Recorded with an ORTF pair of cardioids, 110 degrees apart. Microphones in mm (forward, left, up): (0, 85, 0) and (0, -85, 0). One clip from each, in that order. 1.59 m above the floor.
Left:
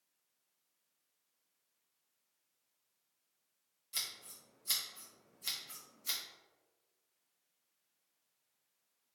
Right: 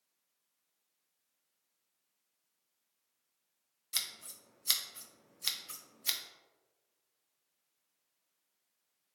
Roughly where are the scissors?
Ahead right.